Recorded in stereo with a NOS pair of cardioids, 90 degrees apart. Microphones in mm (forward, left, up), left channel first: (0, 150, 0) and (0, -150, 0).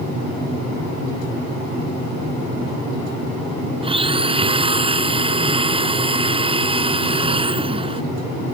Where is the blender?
15° right.